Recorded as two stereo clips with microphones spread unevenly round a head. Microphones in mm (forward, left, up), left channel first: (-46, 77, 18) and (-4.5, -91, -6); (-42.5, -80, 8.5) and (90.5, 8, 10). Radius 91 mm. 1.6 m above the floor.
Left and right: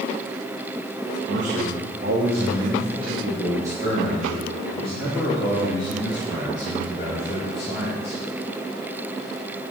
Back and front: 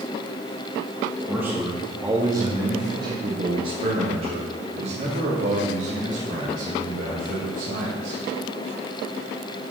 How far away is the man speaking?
About 2.5 m.